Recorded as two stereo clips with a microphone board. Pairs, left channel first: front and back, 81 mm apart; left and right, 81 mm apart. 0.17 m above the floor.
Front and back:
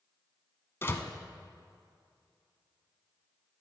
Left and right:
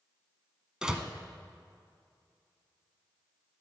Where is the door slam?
20° right, 0.9 m.